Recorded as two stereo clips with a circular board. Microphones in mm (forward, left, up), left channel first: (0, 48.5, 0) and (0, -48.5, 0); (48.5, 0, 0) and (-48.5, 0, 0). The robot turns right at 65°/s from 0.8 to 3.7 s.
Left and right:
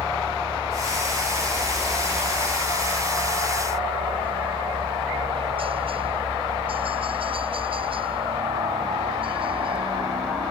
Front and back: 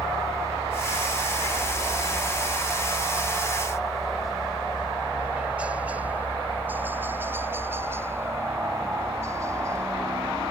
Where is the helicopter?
135° left; by 10.5 s 120° right.